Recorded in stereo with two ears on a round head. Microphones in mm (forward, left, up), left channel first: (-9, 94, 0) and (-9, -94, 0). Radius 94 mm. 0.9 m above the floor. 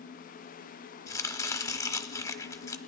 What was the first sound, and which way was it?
Chopping, 15° left (ahead or behind).